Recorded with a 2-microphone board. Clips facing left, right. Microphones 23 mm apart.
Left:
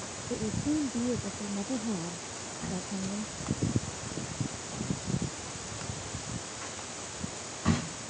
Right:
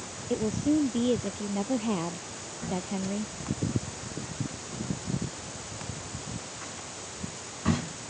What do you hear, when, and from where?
0.3 s a woman speaking: 80° right